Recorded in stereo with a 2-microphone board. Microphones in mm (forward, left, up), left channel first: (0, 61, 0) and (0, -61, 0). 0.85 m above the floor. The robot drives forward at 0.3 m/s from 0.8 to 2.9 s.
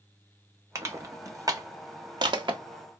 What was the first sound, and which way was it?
Crushing, 25° right (ahead or behind).